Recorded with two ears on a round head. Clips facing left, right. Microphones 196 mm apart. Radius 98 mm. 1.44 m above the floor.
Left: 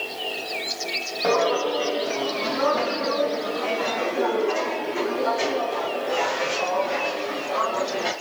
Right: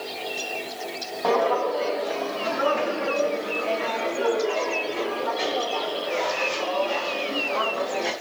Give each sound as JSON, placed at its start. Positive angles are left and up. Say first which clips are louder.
{"t": 1.2, "sound": "footsteps", "louder": "left 1 dB", "side_deg": 20, "distance_m": 2.5}